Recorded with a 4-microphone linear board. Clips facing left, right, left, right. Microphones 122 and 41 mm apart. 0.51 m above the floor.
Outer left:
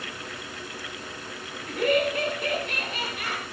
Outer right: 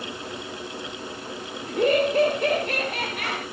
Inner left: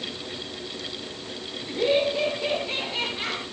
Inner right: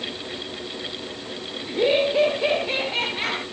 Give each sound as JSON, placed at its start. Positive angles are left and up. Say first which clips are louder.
{"t": 1.7, "sound": "laughter", "louder": "outer right 3 dB, inner right 3 dB", "side_deg": -25, "distance_m": 1.1}